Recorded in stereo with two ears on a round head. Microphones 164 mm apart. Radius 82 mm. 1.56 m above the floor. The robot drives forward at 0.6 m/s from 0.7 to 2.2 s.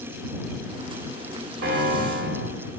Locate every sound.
1.6 s a piano: 60° right (ahead or behind), 2 m; by 2.5 s 55° right (ahead or behind), 2.5 m